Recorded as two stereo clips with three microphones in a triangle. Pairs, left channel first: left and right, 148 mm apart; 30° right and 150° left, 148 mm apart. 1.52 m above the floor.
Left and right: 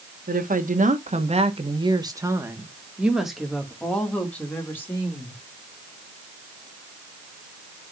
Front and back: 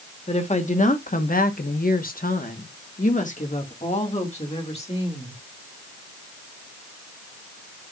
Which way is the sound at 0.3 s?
75° right.